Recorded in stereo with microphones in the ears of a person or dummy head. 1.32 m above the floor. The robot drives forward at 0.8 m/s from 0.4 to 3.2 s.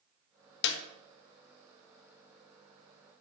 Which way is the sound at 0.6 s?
65° left (ahead or behind).